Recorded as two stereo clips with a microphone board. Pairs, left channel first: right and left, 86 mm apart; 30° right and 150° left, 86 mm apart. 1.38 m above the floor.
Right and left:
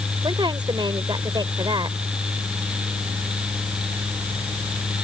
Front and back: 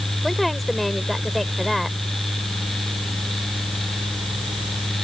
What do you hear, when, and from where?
0.2 s a woman speaking: 60° left